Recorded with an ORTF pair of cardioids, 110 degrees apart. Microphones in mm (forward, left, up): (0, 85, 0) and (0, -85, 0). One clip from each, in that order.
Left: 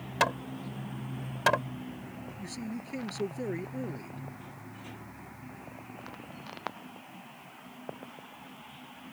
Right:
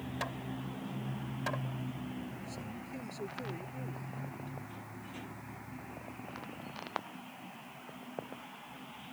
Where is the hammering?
65° left.